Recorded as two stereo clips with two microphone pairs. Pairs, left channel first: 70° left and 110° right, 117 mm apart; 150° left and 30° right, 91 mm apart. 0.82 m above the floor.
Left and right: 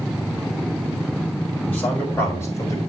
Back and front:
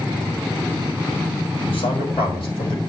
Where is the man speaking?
150° left, 5.5 m; by 2.8 s 135° left, 5 m.